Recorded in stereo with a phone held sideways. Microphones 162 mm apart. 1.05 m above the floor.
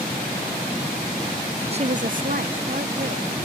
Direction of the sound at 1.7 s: 40° right (ahead or behind).